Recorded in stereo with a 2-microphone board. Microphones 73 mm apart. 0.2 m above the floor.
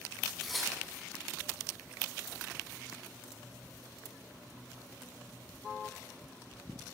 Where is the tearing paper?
Centre (ahead or behind), 1.0 m.